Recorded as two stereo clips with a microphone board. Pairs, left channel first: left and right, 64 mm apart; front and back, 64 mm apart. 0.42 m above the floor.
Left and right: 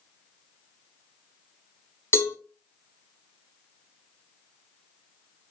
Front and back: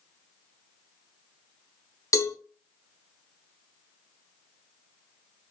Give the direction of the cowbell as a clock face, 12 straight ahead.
11 o'clock.